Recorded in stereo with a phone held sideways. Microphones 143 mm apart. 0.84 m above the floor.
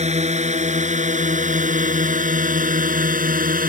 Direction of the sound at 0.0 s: 50° right (ahead or behind).